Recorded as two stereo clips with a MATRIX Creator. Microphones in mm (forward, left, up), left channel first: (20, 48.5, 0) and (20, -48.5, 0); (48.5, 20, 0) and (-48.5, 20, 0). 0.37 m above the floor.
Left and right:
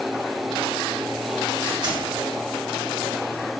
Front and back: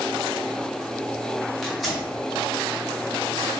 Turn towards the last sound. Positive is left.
turn(degrees=-95)